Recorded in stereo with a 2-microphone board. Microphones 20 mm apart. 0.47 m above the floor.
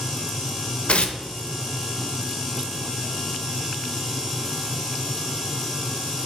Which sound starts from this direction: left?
Tearing paper, at 0.9 s.